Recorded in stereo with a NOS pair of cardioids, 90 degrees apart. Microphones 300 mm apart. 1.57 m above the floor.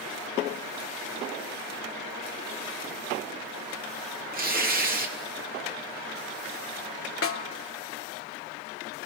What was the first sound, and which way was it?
Tearing paper, 30° right.